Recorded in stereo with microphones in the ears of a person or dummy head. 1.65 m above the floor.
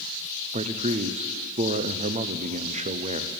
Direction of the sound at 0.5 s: 30° right (ahead or behind).